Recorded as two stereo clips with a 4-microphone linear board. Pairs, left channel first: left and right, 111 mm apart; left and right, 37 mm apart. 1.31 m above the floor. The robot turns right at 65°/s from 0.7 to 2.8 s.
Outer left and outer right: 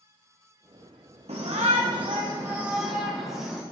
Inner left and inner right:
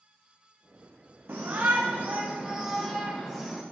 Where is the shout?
105° right, 1.0 m; by 3.6 s 5° right, 1.0 m.